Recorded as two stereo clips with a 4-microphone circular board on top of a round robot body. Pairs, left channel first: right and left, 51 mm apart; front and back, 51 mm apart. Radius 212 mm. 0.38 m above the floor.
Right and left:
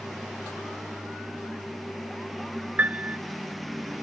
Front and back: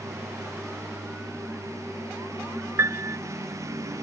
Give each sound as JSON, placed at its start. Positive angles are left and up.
{"t": 0.0, "sound": "a lawn mower", "azimuth_deg": 180}
{"t": 2.8, "sound": "a piano", "azimuth_deg": 150}